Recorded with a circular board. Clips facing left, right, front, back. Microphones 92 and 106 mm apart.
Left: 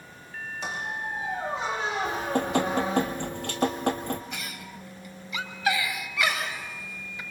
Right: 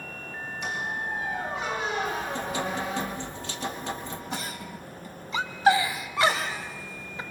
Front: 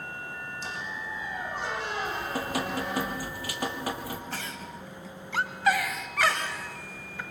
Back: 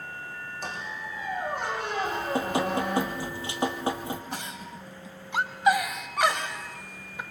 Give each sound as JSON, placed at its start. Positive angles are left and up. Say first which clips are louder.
{"t": 0.6, "sound": "a squeak", "louder": "right 1 dB, back 2 dB", "azimuth_deg": 150, "distance_m": 6.0}
{"t": 2.0, "sound": "dripping", "louder": "left 3 dB, back 4 dB", "azimuth_deg": 120, "distance_m": 1.7}
{"t": 4.3, "sound": "a giggle", "louder": "right 4 dB, even", "azimuth_deg": -120, "distance_m": 1.2}